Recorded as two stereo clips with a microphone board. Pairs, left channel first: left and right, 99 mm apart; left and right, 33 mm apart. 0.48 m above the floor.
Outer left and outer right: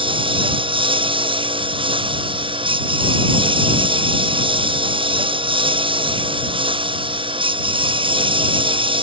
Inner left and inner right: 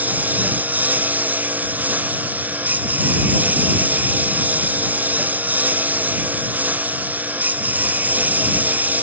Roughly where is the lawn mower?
Right.